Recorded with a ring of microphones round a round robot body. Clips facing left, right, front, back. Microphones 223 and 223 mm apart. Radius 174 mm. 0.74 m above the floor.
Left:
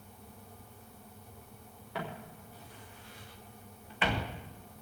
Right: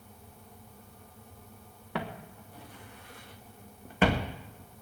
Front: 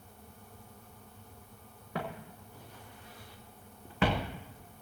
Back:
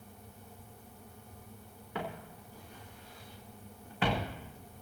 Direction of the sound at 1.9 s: 65° right.